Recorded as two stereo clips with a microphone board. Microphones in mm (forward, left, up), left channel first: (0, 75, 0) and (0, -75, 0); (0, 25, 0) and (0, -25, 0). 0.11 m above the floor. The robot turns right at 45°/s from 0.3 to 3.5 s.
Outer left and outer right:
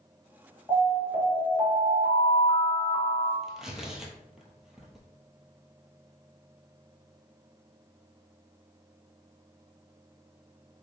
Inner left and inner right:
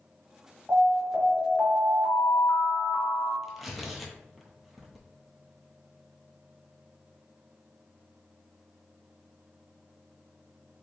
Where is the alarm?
25° right (ahead or behind), 1.6 m; by 3.3 s 5° right (ahead or behind), 1.6 m.